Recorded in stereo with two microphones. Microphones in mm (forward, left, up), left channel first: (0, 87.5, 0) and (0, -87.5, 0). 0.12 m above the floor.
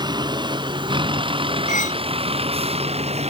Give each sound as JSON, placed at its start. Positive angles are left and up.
{"t": 0.0, "sound": "a vehicle", "side_deg": -25}
{"t": 1.7, "sound": "cutlery clinking", "side_deg": 45}